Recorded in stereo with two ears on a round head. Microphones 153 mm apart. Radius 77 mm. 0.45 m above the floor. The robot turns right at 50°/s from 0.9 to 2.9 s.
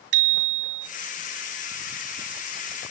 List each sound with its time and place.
0.1 s a bicycle bell: 70° right (ahead or behind), 2.5 m